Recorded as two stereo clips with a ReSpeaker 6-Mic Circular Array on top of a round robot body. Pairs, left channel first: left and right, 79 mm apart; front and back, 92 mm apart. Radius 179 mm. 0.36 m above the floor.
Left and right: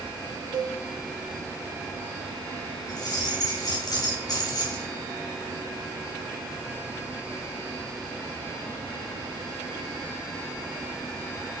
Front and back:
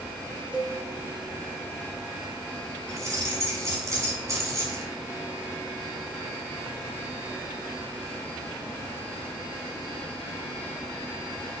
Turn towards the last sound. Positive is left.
turn(degrees=125)